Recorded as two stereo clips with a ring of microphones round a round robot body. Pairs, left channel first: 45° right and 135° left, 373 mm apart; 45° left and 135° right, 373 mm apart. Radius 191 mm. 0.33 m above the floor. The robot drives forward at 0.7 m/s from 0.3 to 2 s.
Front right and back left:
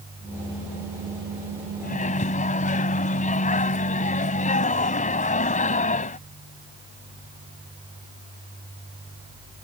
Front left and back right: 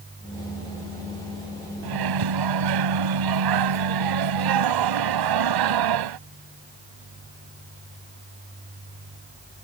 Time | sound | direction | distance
1.8 | a microwave | 110° right | ?